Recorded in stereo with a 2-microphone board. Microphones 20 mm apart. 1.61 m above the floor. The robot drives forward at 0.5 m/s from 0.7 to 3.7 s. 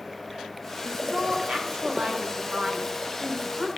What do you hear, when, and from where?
0.8 s a woman speaking: 70° right (ahead or behind), 1.8 m; by 3.7 s 60° right (ahead or behind), 1.9 m